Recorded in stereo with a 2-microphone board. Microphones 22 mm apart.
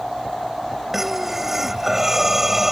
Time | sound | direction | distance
0.9 | breathing | 10° right (ahead or behind) | ?